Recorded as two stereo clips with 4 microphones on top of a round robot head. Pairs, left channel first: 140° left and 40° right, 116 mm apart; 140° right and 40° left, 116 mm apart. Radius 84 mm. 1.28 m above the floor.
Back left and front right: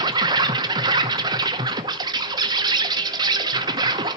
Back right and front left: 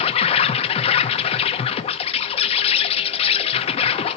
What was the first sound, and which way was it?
An insect, 100° right.